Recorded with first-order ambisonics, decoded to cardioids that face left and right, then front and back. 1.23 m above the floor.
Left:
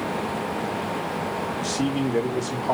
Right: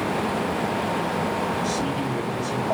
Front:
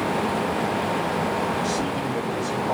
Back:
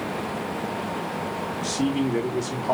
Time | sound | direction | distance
1.6 | a man speaking | 135° left | 2.5 m